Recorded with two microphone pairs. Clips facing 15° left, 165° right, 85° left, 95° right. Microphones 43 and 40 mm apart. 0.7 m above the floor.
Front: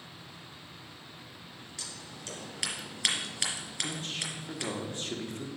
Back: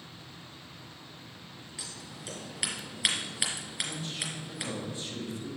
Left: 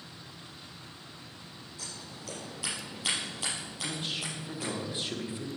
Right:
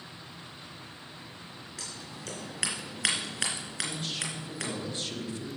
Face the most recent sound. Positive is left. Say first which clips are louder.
# front 2 dB, left 2 dB
turn(degrees=15)